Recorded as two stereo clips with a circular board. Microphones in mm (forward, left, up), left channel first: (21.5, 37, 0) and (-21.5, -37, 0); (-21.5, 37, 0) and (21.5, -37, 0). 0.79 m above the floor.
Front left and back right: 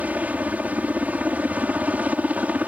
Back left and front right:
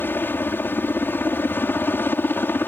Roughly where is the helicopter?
Behind.